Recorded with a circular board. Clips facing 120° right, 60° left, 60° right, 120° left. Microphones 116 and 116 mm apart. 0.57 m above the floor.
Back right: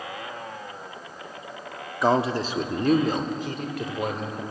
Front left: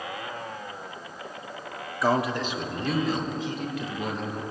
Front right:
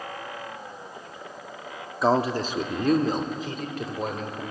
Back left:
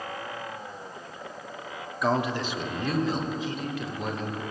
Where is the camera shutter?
No camera shutter in this recording.